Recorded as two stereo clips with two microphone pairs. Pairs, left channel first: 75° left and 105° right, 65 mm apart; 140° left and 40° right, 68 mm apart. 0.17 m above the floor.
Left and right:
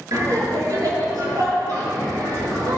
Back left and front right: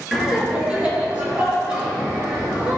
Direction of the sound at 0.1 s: 120° right.